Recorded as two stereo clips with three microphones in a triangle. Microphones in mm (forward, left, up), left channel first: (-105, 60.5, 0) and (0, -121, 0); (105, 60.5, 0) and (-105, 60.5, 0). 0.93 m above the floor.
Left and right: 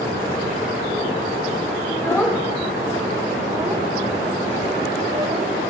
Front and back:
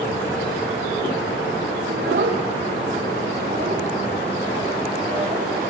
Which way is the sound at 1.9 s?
165° right.